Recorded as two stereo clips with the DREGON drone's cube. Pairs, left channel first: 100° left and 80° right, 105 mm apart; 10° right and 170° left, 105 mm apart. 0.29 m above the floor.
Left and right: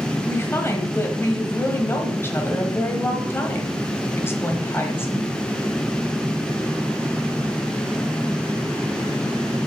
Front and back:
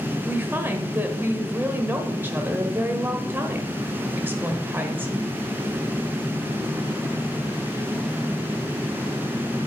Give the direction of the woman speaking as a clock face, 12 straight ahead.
8 o'clock.